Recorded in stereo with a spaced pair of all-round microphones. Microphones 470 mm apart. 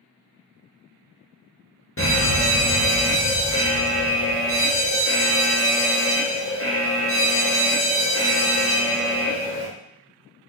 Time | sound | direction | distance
2.0 | a fire alarm | 25° left (ahead or behind) | 1.2 m